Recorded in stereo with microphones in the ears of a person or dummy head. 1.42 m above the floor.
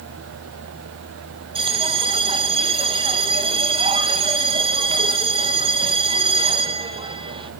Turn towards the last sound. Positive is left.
turn(degrees=-30)  # may be behind; listen again after turning